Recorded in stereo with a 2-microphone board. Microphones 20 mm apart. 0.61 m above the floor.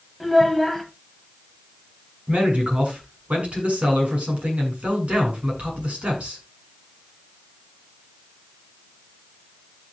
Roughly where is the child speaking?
Centre.